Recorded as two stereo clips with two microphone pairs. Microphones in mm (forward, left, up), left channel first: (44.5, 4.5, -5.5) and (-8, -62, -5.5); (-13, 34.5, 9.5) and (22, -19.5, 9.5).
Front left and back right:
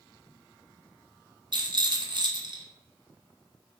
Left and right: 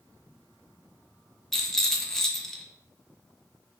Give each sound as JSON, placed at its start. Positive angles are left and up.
{"t": 1.5, "sound": "a rattle", "azimuth_deg": -155, "distance_m": 0.7}